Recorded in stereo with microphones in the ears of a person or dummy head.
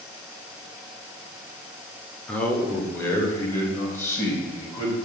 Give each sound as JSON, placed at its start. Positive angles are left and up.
{"t": 2.3, "sound": "a man speaking", "side_deg": 5, "distance_m": 0.6}